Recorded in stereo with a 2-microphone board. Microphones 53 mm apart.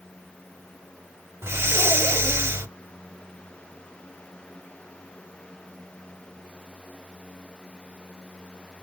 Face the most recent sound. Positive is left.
turn(degrees=-50)  # may be behind; listen again after turning